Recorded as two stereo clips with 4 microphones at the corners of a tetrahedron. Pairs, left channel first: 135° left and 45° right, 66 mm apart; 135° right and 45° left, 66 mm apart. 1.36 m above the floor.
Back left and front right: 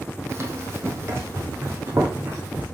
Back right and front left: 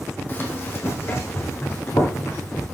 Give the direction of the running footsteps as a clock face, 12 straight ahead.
3 o'clock.